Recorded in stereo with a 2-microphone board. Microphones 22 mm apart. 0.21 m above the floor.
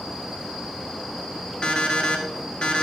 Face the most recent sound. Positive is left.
turn(degrees=55)  # may be behind; listen again after turning